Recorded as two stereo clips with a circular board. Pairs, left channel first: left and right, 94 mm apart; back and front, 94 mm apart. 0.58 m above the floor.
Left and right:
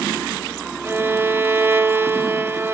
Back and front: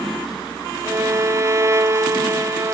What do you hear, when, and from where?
0.8 s a violin: 40° right, 0.8 m